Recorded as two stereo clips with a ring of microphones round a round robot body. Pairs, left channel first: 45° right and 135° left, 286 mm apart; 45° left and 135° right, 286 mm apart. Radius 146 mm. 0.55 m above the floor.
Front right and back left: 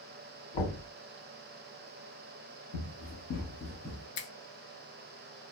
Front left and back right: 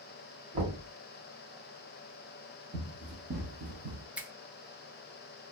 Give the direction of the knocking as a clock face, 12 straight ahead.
2 o'clock.